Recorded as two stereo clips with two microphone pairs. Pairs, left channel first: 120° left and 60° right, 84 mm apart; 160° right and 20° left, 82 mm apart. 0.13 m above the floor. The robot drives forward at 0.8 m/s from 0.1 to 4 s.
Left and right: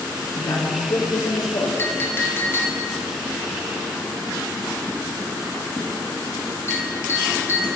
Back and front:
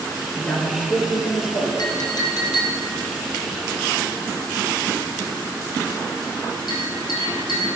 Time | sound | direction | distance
0.4 | a man speaking | 130° left | 2.5 m
1.8 | a clink | straight behind | 1.5 m